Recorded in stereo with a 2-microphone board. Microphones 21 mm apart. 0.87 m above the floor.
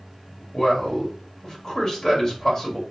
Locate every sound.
0.5 s a man speaking: 30° left (ahead or behind), 1.5 m